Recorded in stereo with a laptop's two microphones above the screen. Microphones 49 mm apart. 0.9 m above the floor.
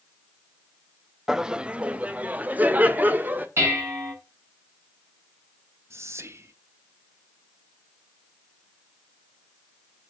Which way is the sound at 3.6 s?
55° right (ahead or behind).